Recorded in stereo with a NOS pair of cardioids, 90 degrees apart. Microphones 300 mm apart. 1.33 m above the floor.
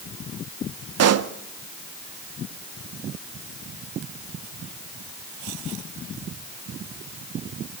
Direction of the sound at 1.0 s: 60° right.